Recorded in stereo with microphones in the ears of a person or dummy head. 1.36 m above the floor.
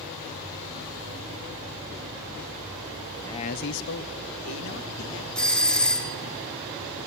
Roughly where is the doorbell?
Centre.